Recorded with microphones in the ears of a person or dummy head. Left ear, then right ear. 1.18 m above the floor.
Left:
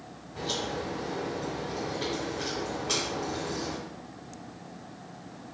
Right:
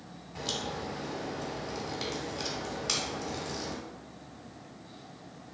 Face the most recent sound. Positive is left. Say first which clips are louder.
# left 3 dB
turn(degrees=-40)  # may be behind; listen again after turning